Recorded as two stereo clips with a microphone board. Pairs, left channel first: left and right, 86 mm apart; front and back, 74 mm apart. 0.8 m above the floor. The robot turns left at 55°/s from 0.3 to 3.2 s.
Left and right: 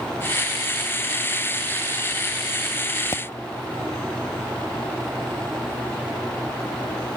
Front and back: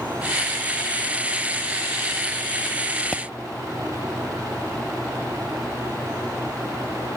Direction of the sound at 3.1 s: 75° left.